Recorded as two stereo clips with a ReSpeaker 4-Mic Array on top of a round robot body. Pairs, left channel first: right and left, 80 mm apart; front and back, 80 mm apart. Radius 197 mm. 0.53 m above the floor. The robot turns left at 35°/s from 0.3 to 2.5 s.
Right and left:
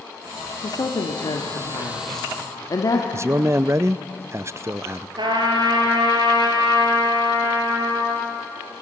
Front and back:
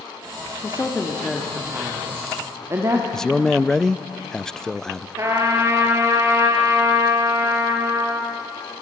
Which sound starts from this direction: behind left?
A trumpet, at 5.2 s.